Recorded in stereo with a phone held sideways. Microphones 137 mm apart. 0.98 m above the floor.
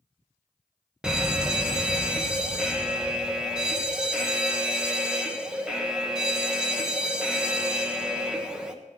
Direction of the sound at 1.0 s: 5° right (ahead or behind).